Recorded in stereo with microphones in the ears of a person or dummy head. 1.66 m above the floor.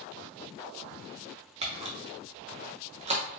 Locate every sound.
1.6 s a camera shutter: 20° right (ahead or behind), 0.6 m